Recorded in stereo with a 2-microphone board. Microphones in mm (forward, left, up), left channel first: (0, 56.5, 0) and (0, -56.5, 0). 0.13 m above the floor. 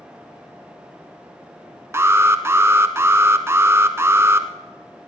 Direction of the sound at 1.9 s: 20° right (ahead or behind).